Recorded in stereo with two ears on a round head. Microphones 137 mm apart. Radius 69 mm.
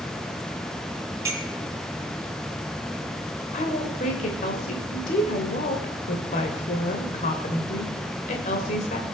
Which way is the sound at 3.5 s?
50° left (ahead or behind).